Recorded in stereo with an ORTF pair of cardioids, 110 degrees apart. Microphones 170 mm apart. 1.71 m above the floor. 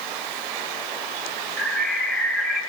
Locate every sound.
1.6 s a bird: 5° left, 1.2 m